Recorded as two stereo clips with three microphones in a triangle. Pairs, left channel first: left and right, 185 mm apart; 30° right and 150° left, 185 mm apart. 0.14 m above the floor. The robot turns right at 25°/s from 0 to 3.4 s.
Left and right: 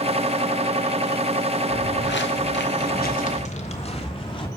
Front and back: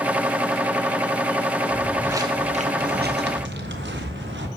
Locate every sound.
1.7 s footsteps: 55° left, 1.0 m; by 4.5 s 150° left, 1.8 m